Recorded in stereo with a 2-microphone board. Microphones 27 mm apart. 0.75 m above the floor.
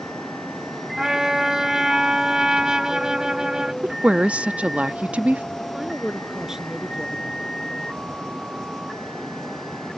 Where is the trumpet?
30° right (ahead or behind).